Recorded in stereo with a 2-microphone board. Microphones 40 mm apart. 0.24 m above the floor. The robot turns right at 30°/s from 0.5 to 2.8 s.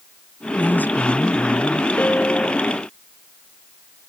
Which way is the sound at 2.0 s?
50° left (ahead or behind).